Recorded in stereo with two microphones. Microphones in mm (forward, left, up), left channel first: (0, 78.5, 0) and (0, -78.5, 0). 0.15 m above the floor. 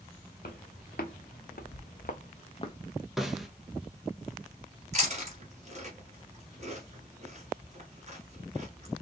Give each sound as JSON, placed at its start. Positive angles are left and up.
{"t": 0.4, "sound": "footsteps", "side_deg": 75, "distance_m": 1.6}
{"t": 3.2, "sound": "a snare drum", "side_deg": 0, "distance_m": 0.8}
{"t": 4.9, "sound": "chewing", "side_deg": -45, "distance_m": 1.7}